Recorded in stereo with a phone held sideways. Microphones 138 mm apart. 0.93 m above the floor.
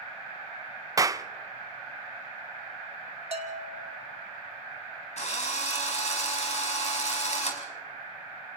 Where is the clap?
25° right (ahead or behind), 0.6 m.